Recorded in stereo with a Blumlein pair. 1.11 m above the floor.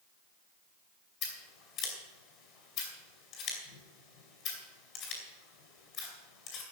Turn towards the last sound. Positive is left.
turn(degrees=35)